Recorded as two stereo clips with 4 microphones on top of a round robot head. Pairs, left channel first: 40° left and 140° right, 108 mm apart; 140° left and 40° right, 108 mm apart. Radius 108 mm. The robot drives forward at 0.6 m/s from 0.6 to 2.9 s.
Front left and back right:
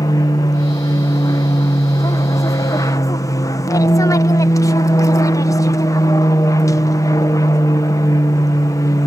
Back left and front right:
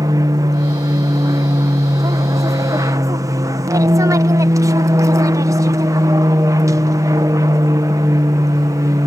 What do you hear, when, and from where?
0.0 s an aircraft: straight ahead